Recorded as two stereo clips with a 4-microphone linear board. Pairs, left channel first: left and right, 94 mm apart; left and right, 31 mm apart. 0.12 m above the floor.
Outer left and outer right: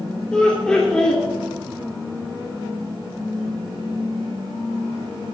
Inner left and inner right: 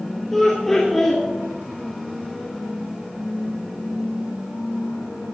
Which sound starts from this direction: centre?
Laughter, at 0.3 s.